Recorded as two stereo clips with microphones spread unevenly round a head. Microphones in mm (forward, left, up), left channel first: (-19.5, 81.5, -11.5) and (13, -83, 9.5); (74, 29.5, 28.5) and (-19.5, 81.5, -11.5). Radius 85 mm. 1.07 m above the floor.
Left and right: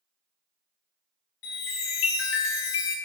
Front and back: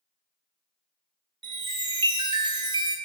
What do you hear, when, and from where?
1.4 s a chime: 100° left, 1.1 m